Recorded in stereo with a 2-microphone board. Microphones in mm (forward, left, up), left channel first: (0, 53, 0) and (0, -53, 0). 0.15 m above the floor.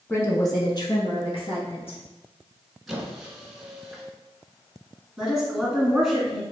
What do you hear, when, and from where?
0.1 s a woman speaking: 20° left (ahead or behind), 1.1 m; by 2.0 s 65° left (ahead or behind), 2.5 m
2.9 s a squeak: 5° right (ahead or behind), 1.1 m
5.2 s a woman speaking: 5° right (ahead or behind), 1.7 m